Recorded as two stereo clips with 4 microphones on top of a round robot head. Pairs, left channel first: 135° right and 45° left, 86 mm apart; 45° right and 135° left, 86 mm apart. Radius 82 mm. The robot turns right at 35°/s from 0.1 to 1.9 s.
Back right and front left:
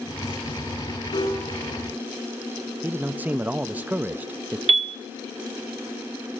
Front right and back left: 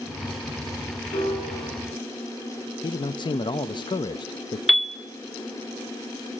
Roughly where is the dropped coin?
I don't hear a dropped coin.